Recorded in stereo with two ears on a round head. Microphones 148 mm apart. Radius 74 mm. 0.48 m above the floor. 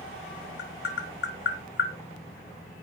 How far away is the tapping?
About 4.5 m.